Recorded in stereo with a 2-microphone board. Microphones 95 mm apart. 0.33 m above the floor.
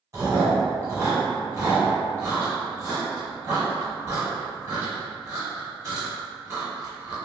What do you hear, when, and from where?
0.1 s chewing: 30° right (ahead or behind), 1.5 m